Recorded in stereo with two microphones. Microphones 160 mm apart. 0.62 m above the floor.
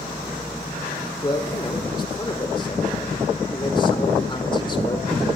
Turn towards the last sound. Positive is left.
turn(degrees=30)  # may be behind; listen again after turning